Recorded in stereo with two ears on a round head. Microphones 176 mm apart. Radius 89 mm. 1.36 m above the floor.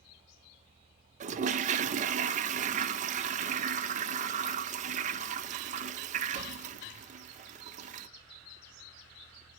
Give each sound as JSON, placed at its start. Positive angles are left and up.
{"t": 1.2, "sound": "a toilet flushing", "side_deg": -40, "distance_m": 0.5}